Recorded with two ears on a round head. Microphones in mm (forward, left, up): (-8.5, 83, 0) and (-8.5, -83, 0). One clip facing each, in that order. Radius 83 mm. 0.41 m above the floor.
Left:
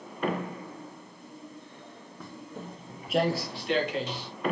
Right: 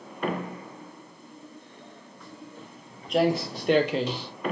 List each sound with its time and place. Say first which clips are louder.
2.2 s footsteps: left 4 dB; 50° left (ahead or behind), 1.0 m; by 4.3 s 70° right (ahead or behind), 1.0 m